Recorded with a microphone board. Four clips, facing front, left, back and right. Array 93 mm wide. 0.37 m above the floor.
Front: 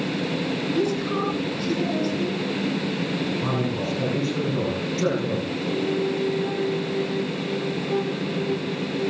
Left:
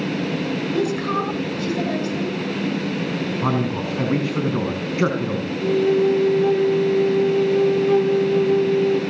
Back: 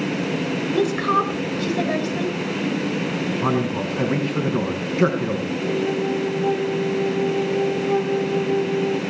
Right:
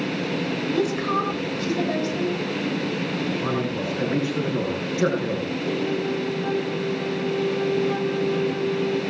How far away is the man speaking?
About 4.5 m.